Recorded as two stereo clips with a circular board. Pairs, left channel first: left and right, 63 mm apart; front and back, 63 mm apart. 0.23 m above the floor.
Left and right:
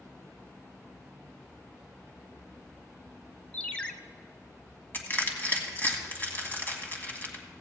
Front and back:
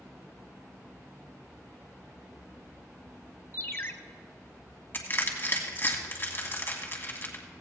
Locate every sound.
3.5 s a ringtone: 25° left, 0.7 m
4.9 s crushing: 45° left, 1.6 m